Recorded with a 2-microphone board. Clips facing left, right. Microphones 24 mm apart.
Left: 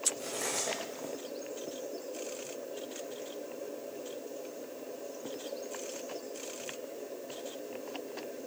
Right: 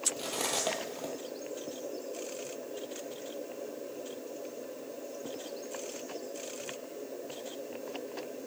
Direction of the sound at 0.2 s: 65° right (ahead or behind).